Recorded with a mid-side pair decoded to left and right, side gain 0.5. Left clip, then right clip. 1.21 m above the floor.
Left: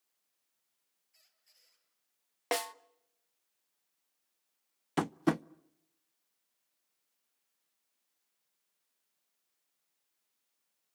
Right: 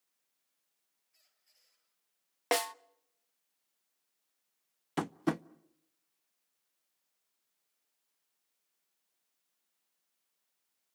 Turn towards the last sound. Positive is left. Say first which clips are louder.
# left 3 dB
turn(degrees=15)